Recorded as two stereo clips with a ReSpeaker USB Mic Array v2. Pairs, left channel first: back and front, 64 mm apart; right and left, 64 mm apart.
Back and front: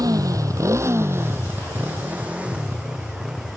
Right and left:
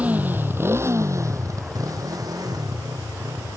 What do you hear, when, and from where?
0.0 s a motorcycle: 20° left; by 3.6 s 80° left